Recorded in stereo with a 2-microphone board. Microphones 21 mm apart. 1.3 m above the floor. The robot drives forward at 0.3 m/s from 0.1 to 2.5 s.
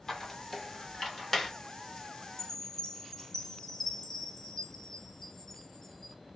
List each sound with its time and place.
0.1 s a squeak: 10° left (ahead or behind), 1.1 m; by 1.5 s 15° left (ahead or behind), 0.8 m
2.4 s a chime: 25° left (ahead or behind), 0.6 m; by 6.2 s 20° left (ahead or behind), 0.6 m